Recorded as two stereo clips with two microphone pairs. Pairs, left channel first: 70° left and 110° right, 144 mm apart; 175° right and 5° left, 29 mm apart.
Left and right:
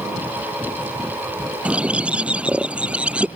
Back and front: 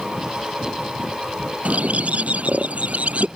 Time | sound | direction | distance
1.6 | a bird | 30° right | ?